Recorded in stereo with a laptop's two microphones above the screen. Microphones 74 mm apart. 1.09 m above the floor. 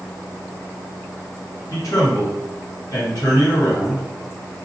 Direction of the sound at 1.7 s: 50° left (ahead or behind).